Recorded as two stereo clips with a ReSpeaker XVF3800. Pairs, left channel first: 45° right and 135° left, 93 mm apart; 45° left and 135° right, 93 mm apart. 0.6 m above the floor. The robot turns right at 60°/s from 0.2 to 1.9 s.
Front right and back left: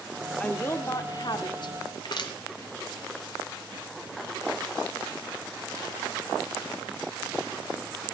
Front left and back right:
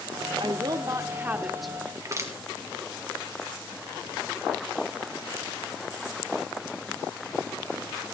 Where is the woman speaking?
120° right, 1.4 m; by 1.8 s 40° right, 1.4 m.